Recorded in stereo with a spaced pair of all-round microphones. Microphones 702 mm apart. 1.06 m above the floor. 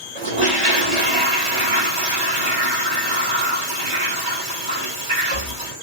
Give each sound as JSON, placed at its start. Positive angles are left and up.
{"t": 0.1, "sound": "a toilet flushing", "side_deg": -45, "distance_m": 2.0}